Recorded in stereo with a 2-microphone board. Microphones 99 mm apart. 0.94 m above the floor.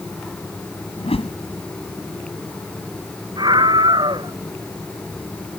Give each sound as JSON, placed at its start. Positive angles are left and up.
{"t": 1.0, "sound": "a whoosh", "side_deg": 80}
{"t": 3.4, "sound": "a scream", "side_deg": -50}